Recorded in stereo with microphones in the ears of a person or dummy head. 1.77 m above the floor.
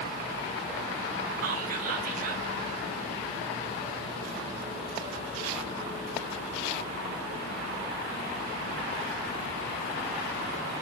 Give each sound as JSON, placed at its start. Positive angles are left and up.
{"t": 1.4, "sound": "whispering", "side_deg": -50, "distance_m": 0.5}